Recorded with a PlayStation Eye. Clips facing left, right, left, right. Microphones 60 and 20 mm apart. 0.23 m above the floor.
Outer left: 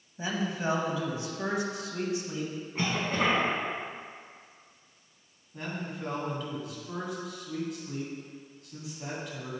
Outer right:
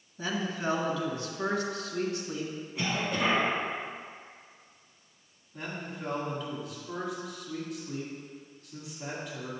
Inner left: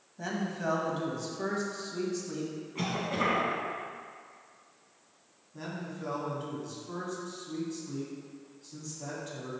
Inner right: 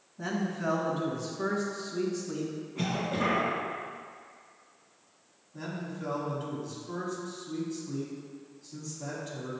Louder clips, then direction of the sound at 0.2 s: Outer left 1 dB, inner right 2 dB; 25° left (ahead or behind).